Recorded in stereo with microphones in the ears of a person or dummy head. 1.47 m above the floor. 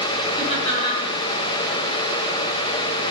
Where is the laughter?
30° left (ahead or behind), 7 m.